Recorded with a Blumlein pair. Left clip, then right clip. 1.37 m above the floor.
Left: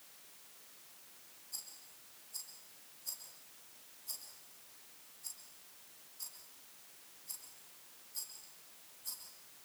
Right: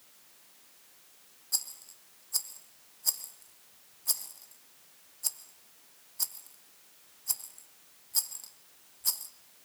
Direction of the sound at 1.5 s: 55° right.